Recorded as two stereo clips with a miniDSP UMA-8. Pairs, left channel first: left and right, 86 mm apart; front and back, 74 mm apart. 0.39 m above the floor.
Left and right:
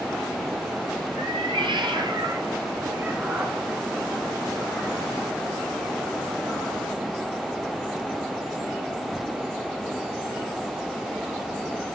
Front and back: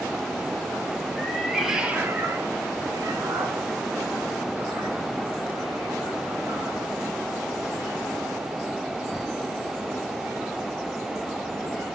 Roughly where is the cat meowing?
Right.